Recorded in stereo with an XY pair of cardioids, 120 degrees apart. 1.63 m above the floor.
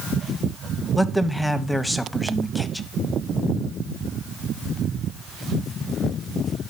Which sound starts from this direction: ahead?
A man speaking, at 0.9 s.